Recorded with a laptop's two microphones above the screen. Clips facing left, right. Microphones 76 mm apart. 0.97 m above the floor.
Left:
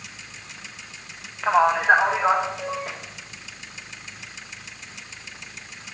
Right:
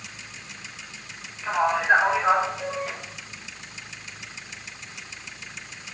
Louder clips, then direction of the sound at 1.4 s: Left 4 dB; 70° left (ahead or behind).